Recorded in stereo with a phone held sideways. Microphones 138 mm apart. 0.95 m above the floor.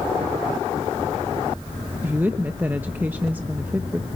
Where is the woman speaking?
15° right (ahead or behind), 0.9 m.